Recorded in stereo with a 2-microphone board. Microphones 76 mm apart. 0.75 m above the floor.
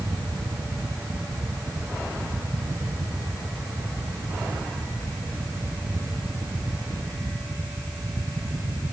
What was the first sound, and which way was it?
Only background noise.